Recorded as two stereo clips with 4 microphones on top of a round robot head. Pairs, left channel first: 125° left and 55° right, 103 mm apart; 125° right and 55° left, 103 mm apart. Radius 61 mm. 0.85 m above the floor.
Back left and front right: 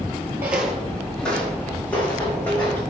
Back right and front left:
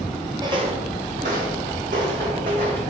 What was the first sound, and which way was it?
Footsteps, 10° left.